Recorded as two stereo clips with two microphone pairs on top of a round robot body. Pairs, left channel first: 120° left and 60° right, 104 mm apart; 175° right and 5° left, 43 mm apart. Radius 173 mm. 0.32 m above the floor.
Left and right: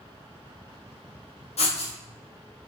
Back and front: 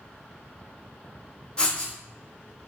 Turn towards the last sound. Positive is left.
turn(degrees=115)